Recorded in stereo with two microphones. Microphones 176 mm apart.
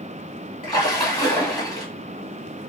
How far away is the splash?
About 1.6 m.